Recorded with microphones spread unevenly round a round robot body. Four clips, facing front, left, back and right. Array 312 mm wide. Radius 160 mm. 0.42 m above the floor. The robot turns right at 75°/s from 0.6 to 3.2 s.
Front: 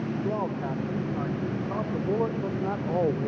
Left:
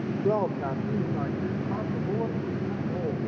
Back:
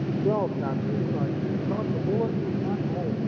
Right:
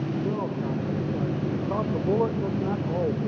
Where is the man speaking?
150° left, 1.4 m; by 3.3 s 15° right, 1.4 m.